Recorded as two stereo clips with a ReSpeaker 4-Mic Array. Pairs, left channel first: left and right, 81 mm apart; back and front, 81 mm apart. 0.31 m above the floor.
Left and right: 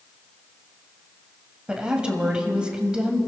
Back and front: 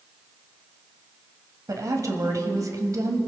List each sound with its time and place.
1.7 s a woman speaking: 15° right, 1.9 m